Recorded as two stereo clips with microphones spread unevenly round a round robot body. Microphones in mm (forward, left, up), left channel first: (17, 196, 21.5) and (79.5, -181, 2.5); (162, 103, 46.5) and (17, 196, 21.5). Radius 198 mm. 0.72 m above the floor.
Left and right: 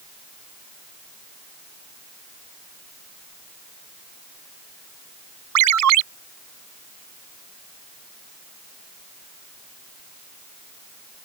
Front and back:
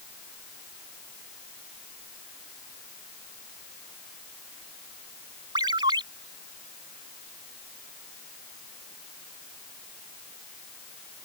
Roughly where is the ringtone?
Behind right.